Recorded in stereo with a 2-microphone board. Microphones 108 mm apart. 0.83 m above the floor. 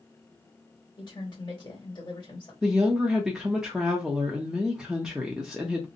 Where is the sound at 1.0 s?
35° left (ahead or behind), 1.5 m.